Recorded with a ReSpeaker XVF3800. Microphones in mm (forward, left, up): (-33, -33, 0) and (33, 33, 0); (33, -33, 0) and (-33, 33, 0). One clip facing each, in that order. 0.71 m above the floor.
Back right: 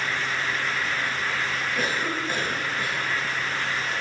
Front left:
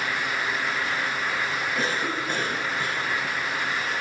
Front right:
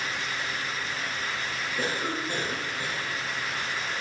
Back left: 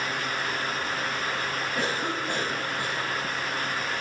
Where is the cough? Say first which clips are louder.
Back right 1 dB, even; 135° left, 5 m.